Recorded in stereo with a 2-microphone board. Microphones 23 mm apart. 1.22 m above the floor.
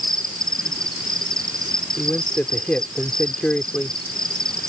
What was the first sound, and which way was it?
An insect, 30° left (ahead or behind).